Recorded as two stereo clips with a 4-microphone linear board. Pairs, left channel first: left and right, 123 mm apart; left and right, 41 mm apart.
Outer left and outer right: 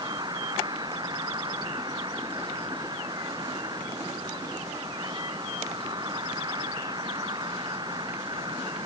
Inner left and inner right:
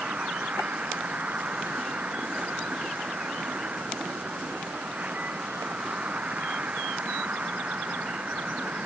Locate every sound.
0.0 s an insect: 35° right (ahead or behind)